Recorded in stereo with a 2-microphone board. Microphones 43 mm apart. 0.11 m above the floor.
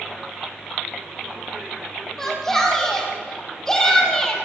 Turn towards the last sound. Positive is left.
turn(degrees=15)  # may be behind; listen again after turning